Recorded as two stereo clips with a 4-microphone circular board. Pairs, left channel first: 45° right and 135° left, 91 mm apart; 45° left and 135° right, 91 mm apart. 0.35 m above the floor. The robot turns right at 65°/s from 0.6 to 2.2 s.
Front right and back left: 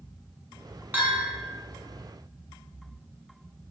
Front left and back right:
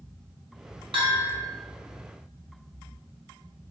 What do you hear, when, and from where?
0.9 s a bell: 160° right, 0.8 m; by 1.4 s 130° right, 0.8 m